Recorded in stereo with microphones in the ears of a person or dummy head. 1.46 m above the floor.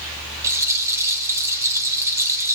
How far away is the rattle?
About 2.5 m.